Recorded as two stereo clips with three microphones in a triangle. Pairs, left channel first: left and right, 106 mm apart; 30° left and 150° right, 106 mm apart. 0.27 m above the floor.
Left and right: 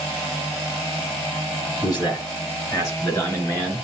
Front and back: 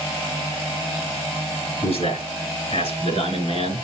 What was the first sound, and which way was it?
A man speaking, 40° left.